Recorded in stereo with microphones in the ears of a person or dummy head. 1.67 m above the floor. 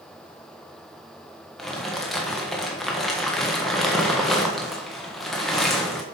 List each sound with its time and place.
1.6 s crumpling: 5° left (ahead or behind), 1.2 m